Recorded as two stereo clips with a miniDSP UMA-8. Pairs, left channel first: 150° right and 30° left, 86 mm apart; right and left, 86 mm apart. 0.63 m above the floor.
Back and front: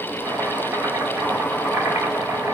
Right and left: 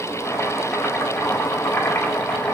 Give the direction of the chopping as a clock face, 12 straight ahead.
1 o'clock.